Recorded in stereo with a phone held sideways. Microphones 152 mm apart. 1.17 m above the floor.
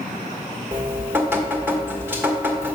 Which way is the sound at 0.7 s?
15° right (ahead or behind).